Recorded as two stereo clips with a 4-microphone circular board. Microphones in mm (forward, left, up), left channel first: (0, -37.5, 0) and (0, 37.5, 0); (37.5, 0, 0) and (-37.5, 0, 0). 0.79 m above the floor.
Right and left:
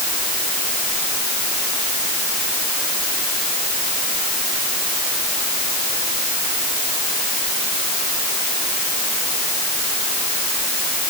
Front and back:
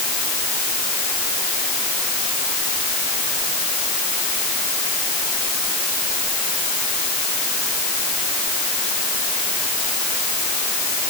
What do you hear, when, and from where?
Only background noise.